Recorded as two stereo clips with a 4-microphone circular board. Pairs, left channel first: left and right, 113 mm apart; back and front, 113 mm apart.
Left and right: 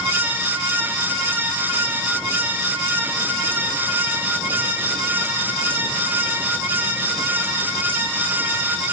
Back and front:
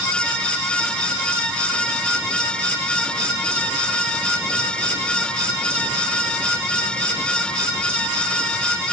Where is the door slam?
No door slam in this recording.